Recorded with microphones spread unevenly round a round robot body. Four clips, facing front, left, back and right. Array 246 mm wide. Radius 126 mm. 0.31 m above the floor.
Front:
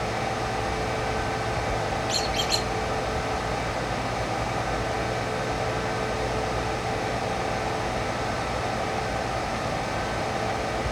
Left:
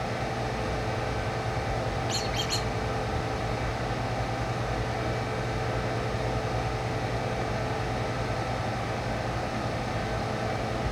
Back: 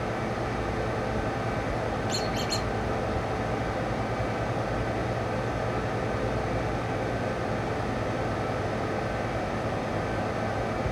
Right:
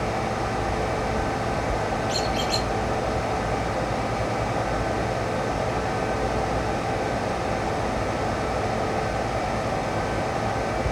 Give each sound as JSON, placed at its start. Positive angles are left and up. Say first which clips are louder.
{"t": 2.1, "sound": "a squeak", "louder": "right 6 dB, front 2 dB", "azimuth_deg": 100, "distance_m": 0.9}